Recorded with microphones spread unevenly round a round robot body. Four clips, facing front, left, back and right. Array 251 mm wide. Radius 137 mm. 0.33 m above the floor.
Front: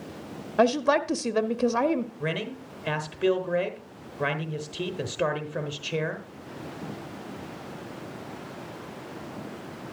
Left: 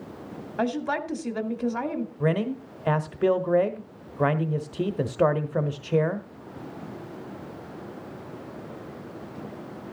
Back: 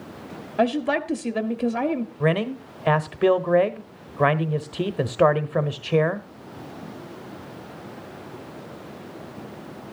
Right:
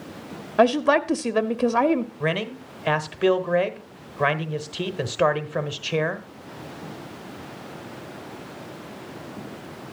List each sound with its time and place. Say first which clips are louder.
0.6 s a woman speaking: right 9 dB, even; 80° right, 1.0 m
2.2 s a man speaking: left 1 dB, back 8 dB; 175° right, 1.1 m